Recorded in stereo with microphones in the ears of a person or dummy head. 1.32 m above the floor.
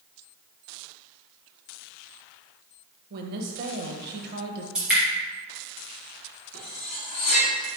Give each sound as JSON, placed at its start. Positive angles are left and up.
{"t": 3.1, "sound": "a woman speaking", "side_deg": -50, "distance_m": 0.8}
{"t": 4.8, "sound": "dripping", "side_deg": -5, "distance_m": 1.8}
{"t": 6.5, "sound": "cutlery clinking", "side_deg": 45, "distance_m": 1.2}